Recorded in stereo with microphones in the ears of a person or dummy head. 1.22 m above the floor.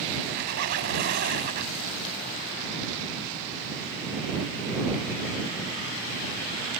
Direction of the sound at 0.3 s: 55° right (ahead or behind).